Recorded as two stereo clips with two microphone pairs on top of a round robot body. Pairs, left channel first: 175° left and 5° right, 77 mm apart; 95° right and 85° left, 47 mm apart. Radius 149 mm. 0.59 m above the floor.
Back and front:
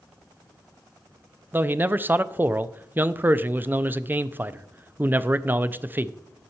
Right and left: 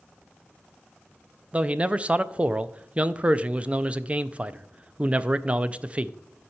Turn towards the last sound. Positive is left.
turn(degrees=35)